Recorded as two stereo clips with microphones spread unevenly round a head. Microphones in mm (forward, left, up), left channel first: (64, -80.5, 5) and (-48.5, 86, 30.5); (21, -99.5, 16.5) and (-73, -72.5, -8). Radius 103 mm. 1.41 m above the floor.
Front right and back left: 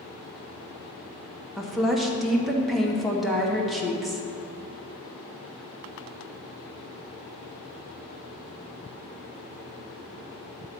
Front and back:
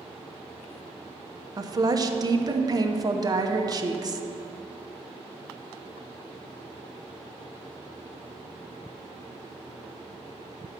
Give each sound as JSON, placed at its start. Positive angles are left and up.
{"t": 1.6, "sound": "a woman speaking", "azimuth_deg": -145, "distance_m": 0.9}